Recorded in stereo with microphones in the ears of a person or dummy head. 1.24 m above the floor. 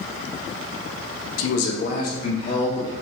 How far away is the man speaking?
About 1.0 m.